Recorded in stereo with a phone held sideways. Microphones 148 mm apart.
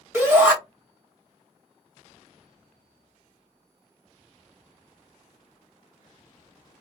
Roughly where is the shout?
Centre.